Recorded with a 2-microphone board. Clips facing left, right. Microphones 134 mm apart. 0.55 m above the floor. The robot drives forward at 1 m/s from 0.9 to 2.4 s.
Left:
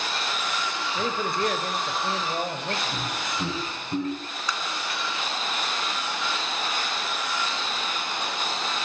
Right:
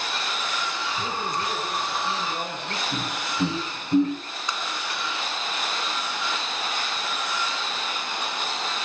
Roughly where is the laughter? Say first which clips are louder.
Right 1 dB; centre.